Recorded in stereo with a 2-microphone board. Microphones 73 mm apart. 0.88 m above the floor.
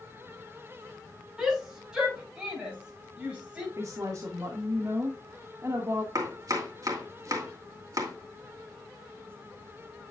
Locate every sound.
1.4 s a shout: 10° right (ahead or behind), 7.5 m; by 3.7 s 20° right (ahead or behind), 6.5 m
3.8 s a woman speaking: 45° right (ahead or behind), 1.6 m
6.2 s chopping: 55° right (ahead or behind), 2.5 m